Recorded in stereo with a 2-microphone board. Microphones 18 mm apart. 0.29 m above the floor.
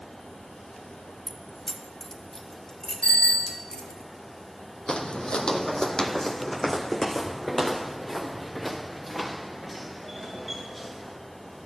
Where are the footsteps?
75° left (ahead or behind), 0.8 m; by 11.2 s centre (ahead or behind), 3.5 m.